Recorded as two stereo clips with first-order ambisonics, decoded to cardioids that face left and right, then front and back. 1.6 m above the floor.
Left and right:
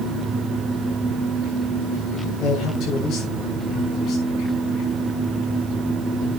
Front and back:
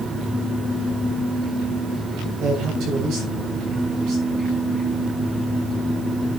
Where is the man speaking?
135° left, 6 m.